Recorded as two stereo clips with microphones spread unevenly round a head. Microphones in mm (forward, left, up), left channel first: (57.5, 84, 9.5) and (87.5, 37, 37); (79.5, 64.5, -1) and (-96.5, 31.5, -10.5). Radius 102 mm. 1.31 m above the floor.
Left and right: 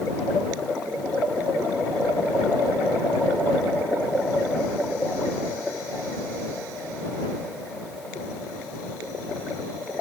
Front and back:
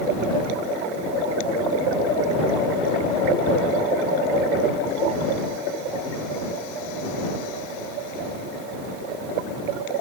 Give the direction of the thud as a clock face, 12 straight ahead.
No thud in this recording.